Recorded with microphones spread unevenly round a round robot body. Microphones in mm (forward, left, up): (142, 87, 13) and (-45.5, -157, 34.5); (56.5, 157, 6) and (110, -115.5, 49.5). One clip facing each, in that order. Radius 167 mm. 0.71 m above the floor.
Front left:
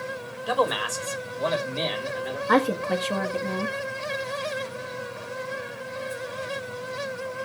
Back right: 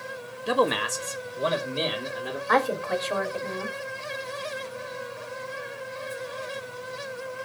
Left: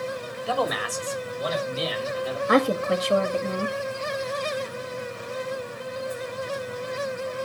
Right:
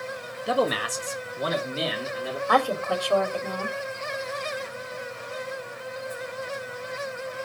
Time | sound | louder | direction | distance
0.5 | a man speaking | back right 2 dB, right 3 dB | 150° right | 1.2 m
2.5 | a woman speaking | front left 3 dB, left 5 dB | 60° left | 1.2 m